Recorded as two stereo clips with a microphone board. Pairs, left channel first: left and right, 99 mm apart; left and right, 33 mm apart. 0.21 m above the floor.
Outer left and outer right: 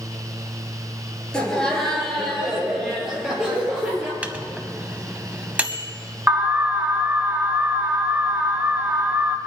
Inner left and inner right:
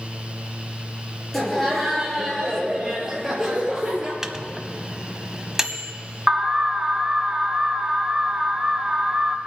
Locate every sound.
1.3 s laughter: 10° left (ahead or behind), 4 m; by 4.1 s 15° right (ahead or behind), 5 m
4.2 s a microwave: 15° right (ahead or behind), 0.8 m
6.3 s an alarm: 20° right (ahead or behind), 0.9 m